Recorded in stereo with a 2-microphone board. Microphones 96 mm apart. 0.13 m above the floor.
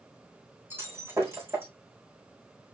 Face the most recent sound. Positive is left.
turn(degrees=-25)  # may be behind; listen again after turning